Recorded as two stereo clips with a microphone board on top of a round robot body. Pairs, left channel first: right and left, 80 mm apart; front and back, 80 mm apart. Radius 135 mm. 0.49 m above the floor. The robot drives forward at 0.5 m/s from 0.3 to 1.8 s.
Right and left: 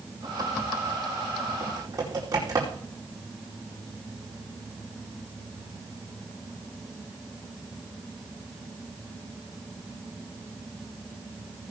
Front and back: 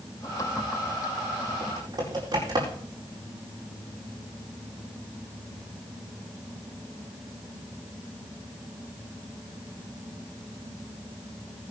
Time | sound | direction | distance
1.6 | typing on a keyboard | 135° left | 5 m